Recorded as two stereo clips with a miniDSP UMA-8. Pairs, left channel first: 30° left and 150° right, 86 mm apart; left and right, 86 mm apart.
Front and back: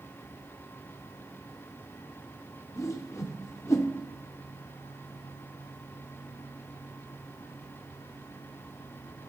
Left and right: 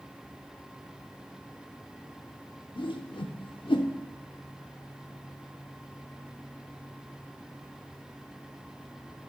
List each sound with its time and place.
2.8 s a whoosh: 85° left, 0.5 m